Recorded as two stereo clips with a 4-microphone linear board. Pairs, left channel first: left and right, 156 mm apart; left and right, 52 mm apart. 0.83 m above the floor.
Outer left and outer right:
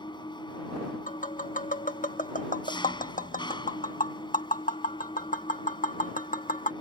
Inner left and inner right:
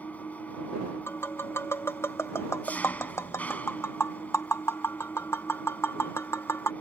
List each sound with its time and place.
0.0 s an engine running: 30° left (ahead or behind)
1.1 s tapping: 55° left (ahead or behind)